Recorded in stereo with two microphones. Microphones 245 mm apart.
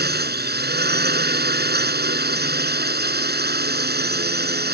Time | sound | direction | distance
0.0 | a drone | 45° right (ahead or behind) | ?